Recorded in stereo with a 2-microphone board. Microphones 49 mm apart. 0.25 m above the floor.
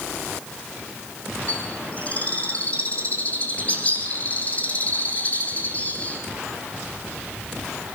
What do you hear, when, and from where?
1.5 s a bird: 30° left (ahead or behind), 4 m